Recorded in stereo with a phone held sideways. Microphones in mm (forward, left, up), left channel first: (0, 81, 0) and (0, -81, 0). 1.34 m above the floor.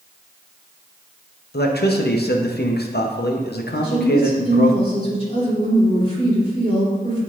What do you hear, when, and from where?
1.5 s a man speaking: 85° left, 0.7 m
3.7 s a woman speaking: 35° left (ahead or behind), 3 m